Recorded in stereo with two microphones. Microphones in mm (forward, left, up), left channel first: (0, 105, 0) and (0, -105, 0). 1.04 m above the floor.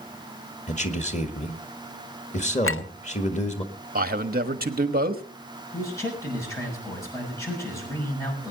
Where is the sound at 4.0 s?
45° right (ahead or behind), 1.3 m.